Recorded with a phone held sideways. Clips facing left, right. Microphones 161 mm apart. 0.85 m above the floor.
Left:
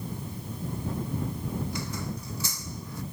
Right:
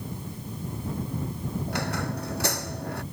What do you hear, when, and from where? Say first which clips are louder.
1.7 s a squeak: right 4 dB; 70° right (ahead or behind)